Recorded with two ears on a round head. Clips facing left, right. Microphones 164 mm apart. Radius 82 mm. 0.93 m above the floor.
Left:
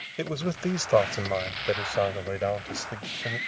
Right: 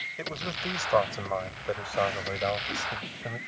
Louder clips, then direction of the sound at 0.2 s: Left 7 dB; 45° left (ahead or behind).